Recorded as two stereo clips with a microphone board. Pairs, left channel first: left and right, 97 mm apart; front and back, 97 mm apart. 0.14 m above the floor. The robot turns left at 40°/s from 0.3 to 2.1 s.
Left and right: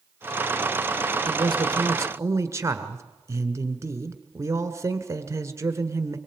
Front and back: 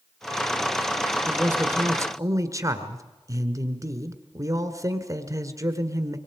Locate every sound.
1.2 s a man speaking: 105° right, 1.5 m; by 6.2 s 140° right, 1.5 m